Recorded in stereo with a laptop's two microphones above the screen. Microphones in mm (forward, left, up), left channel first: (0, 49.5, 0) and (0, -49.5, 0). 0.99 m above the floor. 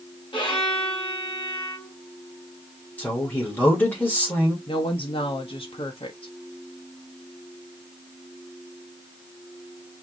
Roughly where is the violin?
Left.